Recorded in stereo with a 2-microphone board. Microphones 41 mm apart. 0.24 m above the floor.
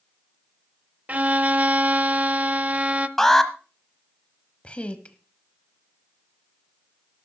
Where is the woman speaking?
25° left (ahead or behind), 1.0 m.